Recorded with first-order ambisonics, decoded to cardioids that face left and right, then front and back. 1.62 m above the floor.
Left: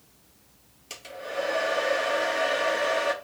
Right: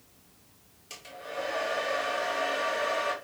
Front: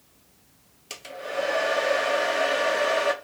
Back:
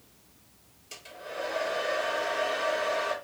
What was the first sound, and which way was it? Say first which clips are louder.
A hair dryer: left 5 dB, front 8 dB; 15° left.